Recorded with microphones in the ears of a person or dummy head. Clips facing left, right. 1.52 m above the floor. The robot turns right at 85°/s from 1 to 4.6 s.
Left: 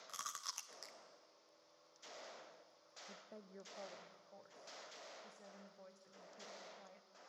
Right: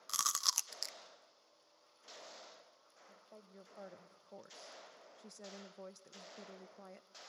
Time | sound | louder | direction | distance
0.1 | chewing | right 11 dB | 70° right (ahead or behind) | 0.5 m
3.1 | a woman speaking | left 3 dB | 125° left | 0.9 m